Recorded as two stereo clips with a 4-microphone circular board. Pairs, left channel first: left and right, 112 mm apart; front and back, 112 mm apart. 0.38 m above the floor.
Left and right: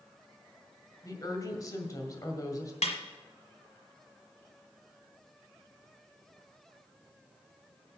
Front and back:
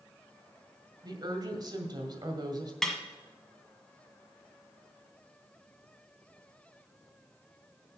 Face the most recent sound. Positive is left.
turn(degrees=85)